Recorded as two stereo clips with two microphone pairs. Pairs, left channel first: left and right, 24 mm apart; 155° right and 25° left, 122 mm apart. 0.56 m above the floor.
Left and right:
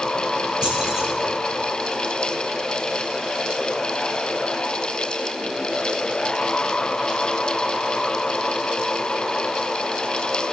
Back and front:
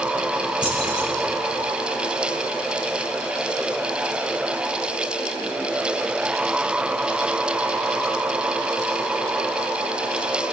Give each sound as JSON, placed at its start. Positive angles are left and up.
{"t": 0.6, "sound": "keys jangling", "azimuth_deg": -30, "distance_m": 5.5}